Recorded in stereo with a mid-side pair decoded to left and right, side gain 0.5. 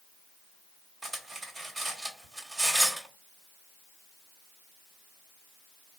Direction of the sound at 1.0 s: 25° right.